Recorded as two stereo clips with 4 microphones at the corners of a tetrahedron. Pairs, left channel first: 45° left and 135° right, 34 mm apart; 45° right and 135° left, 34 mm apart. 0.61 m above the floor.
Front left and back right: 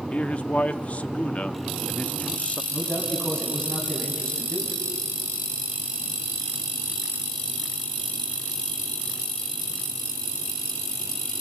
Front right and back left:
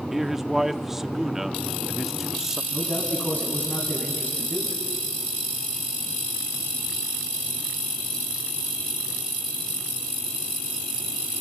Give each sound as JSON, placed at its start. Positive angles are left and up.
{"t": 0.1, "sound": "a man speaking", "azimuth_deg": 60, "distance_m": 0.7}
{"t": 2.7, "sound": "a man speaking", "azimuth_deg": -15, "distance_m": 4.5}